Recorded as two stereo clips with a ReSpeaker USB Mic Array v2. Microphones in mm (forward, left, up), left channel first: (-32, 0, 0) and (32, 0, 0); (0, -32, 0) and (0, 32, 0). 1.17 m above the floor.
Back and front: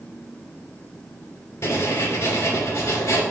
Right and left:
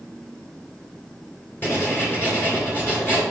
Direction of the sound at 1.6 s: 140° right.